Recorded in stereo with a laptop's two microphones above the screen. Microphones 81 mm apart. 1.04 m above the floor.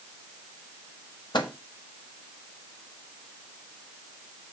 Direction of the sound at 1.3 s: 65° left (ahead or behind).